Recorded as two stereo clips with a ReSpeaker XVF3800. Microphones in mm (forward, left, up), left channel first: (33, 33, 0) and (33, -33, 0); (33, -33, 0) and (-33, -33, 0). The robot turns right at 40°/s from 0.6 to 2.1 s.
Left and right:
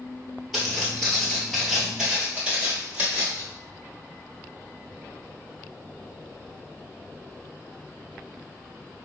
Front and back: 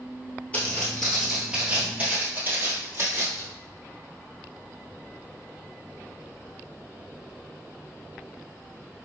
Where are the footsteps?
5° right, 1.3 m; by 3.4 s 145° right, 2 m.